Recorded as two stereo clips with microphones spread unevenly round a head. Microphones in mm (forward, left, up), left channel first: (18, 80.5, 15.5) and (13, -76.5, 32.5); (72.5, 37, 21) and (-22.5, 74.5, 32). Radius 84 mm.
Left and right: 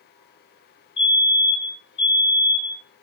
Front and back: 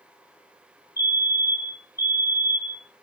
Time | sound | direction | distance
1.0 | a fire alarm | 30° left | 3.5 m